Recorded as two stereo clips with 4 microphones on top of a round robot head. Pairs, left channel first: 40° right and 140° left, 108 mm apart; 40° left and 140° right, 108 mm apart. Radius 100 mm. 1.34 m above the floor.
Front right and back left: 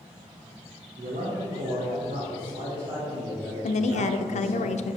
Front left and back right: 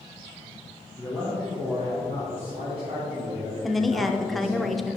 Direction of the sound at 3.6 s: 50° right.